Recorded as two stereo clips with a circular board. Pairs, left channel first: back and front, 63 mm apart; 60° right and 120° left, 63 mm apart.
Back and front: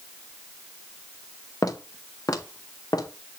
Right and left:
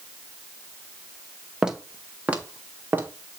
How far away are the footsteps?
About 1.4 m.